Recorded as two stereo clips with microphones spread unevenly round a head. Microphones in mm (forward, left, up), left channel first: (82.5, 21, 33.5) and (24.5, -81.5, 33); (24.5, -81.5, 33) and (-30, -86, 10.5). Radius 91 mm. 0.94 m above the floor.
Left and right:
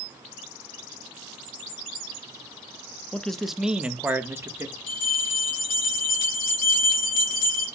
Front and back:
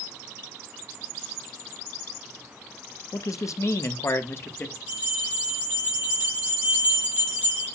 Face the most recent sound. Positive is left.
turn(degrees=75)